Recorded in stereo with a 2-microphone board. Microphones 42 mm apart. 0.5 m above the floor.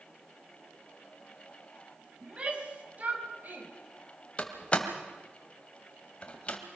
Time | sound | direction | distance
2.2 | a shout | 30° right (ahead or behind) | 4 m
4.4 | a door slam | 30° left (ahead or behind) | 2 m